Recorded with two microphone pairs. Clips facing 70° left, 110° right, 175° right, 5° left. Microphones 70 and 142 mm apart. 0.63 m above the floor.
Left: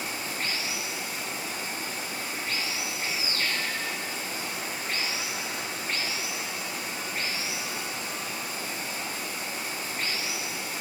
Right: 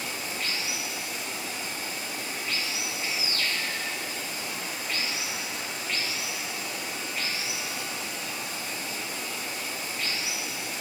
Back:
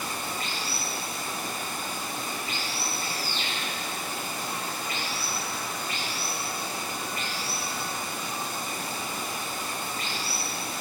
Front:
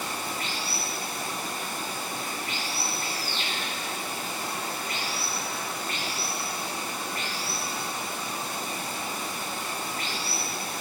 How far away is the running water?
About 4.5 m.